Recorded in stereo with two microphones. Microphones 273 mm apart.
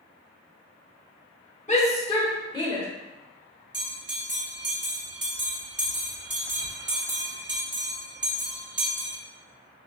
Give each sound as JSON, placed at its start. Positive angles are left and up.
{"t": 1.7, "sound": "a shout", "side_deg": 25, "distance_m": 1.0}
{"t": 3.7, "sound": "a bell", "side_deg": -40, "distance_m": 0.7}